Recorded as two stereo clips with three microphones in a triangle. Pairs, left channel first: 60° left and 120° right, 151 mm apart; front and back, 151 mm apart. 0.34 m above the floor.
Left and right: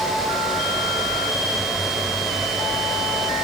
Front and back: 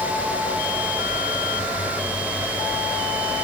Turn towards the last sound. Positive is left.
No sound to turn to.